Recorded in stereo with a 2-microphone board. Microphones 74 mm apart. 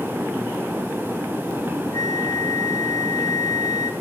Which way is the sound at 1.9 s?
65° left (ahead or behind).